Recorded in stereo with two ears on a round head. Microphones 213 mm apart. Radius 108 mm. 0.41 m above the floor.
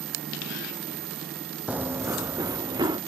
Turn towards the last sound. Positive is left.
turn(degrees=-20)  # may be behind; listen again after turning